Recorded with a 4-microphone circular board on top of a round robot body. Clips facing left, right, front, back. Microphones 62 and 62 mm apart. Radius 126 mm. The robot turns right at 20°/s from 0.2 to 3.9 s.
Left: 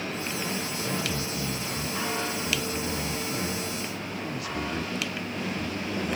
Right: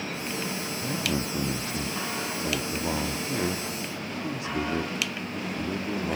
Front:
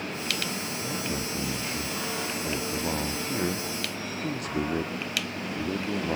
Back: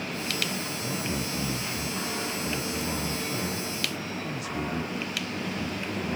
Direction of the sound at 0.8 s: 95° right.